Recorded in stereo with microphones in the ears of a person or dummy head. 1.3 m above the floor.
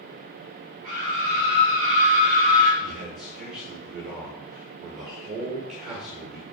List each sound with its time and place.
0.8 s a scream: 50° right (ahead or behind), 4 m; by 2.7 s 40° right (ahead or behind), 3.5 m
2.8 s a man speaking: 50° right (ahead or behind), 2 m